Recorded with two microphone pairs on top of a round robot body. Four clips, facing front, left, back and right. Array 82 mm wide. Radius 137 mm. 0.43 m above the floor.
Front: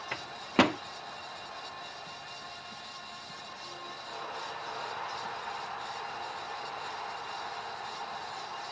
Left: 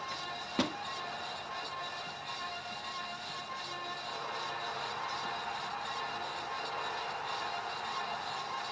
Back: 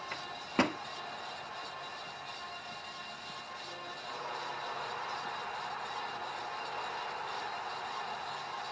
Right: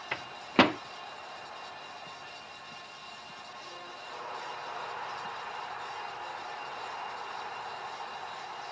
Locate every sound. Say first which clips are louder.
0.1 s a microwave: right 11 dB, front 6 dB; 70° right